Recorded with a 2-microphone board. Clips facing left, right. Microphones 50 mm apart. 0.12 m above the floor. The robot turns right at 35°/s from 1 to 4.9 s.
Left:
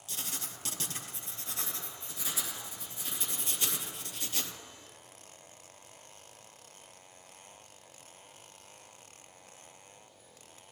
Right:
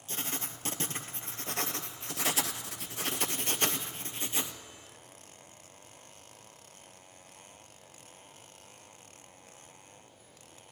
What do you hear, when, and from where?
0.1 s writing: 140° right, 0.5 m; by 4.5 s 20° right, 0.5 m